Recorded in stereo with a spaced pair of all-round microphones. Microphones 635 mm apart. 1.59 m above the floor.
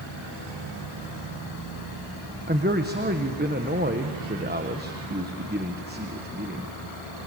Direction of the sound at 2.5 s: 15° right (ahead or behind).